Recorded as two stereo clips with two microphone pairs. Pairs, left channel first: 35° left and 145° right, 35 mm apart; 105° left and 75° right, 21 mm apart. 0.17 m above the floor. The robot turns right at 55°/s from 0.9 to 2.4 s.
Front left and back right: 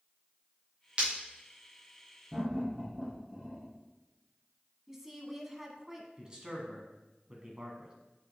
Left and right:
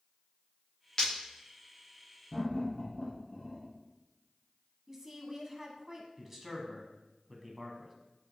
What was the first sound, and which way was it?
Breaking glass, 165° left.